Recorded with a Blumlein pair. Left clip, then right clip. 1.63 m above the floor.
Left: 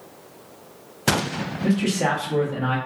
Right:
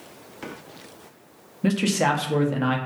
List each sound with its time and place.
1.6 s a man speaking: 25° right, 0.7 m